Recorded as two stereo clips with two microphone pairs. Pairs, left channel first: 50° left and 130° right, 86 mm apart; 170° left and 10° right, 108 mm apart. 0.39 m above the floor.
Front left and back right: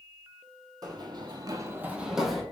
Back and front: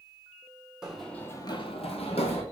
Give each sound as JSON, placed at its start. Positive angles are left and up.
{"t": 0.8, "sound": "running footsteps", "azimuth_deg": -90, "distance_m": 0.8}